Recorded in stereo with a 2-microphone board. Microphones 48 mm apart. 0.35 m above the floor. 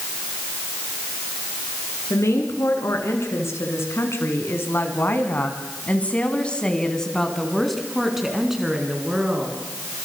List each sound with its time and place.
2.1 s a woman speaking: 75° left (ahead or behind), 5.5 m; by 9.6 s 15° right (ahead or behind), 5.5 m